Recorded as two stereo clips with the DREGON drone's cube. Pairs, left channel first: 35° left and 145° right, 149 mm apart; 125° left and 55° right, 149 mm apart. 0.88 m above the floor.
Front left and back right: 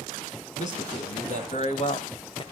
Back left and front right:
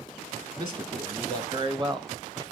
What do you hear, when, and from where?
0.6 s a man speaking: 5° right, 2.5 m